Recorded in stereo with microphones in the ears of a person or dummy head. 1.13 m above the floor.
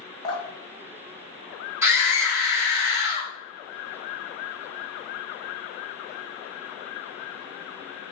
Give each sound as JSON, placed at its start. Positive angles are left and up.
{"t": 0.2, "sound": "dripping", "side_deg": 35, "distance_m": 0.7}
{"t": 1.8, "sound": "a scream", "side_deg": -5, "distance_m": 1.4}